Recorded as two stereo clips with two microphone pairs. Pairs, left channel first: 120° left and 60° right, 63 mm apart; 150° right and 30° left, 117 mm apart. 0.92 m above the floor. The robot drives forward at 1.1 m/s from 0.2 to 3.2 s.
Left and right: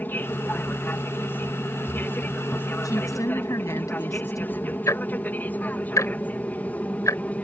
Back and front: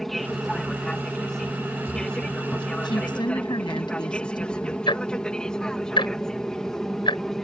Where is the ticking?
160° left.